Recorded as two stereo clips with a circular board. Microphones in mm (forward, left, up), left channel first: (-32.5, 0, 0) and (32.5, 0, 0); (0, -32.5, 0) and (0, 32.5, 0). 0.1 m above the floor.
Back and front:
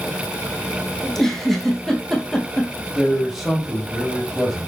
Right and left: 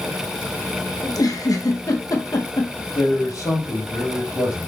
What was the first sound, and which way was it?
A giggle, 95° right.